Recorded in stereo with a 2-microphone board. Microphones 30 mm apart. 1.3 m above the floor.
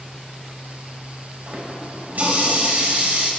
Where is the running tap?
75° right (ahead or behind), 4.5 m.